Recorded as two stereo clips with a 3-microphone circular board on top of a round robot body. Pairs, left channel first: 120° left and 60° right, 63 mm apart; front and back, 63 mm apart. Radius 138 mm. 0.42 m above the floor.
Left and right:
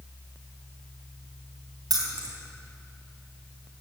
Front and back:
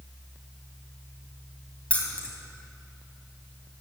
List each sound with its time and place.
1.9 s keys jangling: 70° right, 3 m